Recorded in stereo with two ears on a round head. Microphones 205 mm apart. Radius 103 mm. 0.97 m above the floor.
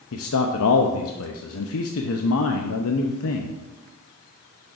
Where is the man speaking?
70° left (ahead or behind), 0.7 m.